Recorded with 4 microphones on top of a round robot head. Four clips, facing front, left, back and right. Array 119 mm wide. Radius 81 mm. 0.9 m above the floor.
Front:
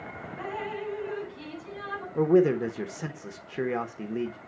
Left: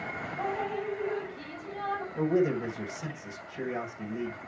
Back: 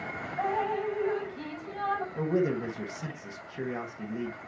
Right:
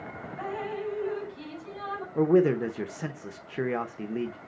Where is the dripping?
175° right, 5.5 m.